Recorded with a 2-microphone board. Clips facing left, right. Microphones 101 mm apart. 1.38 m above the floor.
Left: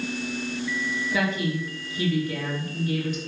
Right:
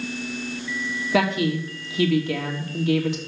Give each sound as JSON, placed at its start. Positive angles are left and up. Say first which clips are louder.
{"t": 1.1, "sound": "a woman speaking", "louder": "right 6 dB", "side_deg": -75, "distance_m": 2.5}